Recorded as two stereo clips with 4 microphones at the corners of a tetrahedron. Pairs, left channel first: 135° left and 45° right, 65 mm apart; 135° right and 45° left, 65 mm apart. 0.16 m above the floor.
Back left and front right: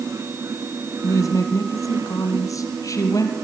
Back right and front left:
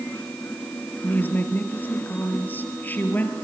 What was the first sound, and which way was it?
A woman speaking, 165° left.